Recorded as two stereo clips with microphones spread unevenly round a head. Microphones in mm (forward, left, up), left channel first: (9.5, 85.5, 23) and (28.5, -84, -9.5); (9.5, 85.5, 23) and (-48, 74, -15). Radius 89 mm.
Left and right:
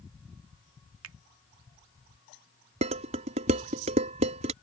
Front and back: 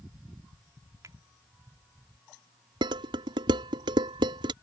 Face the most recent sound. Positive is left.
turn(degrees=-140)